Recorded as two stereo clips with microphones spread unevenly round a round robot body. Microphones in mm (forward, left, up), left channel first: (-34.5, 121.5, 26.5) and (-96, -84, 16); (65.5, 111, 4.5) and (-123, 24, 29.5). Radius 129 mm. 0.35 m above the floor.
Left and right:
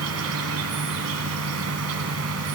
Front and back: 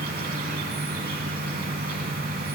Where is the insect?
95° right, 1.6 m.